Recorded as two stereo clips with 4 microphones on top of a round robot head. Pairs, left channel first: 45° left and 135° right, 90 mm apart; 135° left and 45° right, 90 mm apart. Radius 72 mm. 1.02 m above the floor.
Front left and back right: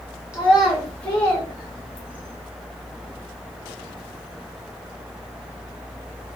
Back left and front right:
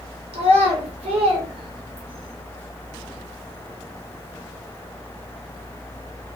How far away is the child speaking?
About 0.9 m.